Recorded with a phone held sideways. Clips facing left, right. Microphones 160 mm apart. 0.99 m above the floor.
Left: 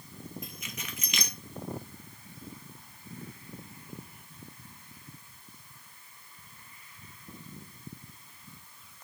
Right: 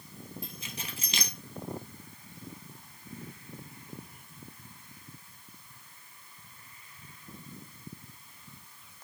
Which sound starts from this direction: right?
Keys jangling, at 0.4 s.